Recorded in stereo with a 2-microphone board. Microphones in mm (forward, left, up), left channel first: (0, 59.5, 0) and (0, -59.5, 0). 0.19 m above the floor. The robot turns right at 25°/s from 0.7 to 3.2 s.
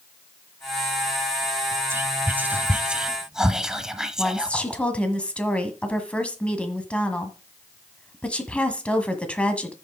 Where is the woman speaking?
10° left (ahead or behind), 1.5 m.